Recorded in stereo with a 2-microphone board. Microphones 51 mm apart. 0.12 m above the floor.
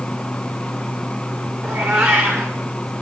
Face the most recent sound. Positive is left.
turn(degrees=-60)  # may be behind; listen again after turning